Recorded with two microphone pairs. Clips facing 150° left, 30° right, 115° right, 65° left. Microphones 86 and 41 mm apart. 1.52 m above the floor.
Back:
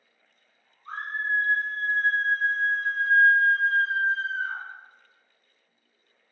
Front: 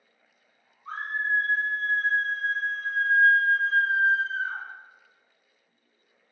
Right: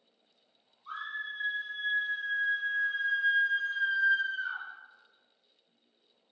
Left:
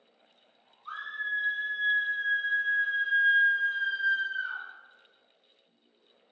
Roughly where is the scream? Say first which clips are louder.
Front 1 dB, left 4 dB; ahead left.